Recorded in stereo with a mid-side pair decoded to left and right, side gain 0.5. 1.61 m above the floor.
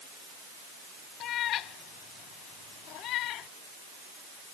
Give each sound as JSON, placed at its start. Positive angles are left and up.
{"t": 1.2, "sound": "a cat meowing", "azimuth_deg": 65}